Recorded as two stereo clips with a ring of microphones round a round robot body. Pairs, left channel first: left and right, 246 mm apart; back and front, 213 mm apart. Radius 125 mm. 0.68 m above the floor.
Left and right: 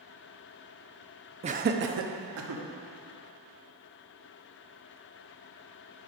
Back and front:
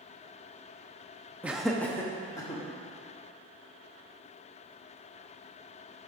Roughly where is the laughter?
Right.